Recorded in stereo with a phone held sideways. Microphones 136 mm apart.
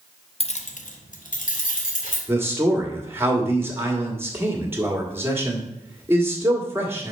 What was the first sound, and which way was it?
Keys jangling, 45° left (ahead or behind).